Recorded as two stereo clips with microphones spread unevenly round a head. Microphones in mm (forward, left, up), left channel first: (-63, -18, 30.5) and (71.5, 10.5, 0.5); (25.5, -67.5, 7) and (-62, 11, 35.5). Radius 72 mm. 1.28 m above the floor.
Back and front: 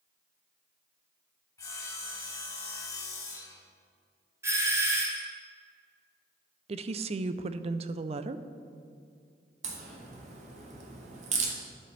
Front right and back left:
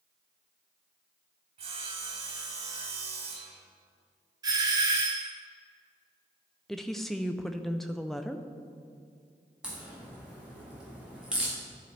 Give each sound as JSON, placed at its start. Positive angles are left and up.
{"t": 1.6, "sound": "sawing", "azimuth_deg": 135, "distance_m": 1.8}
{"t": 4.4, "sound": "a doorbell", "azimuth_deg": 70, "distance_m": 1.5}
{"t": 6.7, "sound": "a woman speaking", "azimuth_deg": 35, "distance_m": 0.5}
{"t": 9.6, "sound": "a crack", "azimuth_deg": 55, "distance_m": 1.6}